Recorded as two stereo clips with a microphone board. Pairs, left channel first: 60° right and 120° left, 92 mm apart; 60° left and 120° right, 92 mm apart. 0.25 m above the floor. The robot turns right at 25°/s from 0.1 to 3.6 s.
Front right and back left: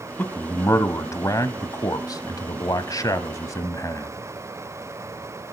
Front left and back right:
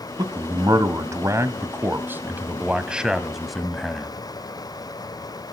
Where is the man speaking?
115° right, 1.2 m; by 4.1 s 30° right, 1.2 m.